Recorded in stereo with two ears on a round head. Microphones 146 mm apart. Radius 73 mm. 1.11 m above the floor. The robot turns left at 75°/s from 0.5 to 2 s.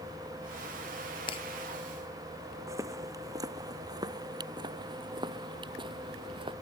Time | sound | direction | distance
1.3 | breaking glass | 30° left (ahead or behind) | ?
2.7 | footsteps | 20° right (ahead or behind) | ?